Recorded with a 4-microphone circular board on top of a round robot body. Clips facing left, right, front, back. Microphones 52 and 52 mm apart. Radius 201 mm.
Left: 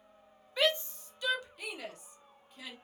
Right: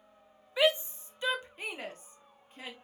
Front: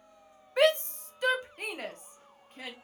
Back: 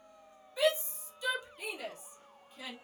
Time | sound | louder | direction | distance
0.6 | a shout | right 3 dB, front 6 dB | 15° right | 0.8 m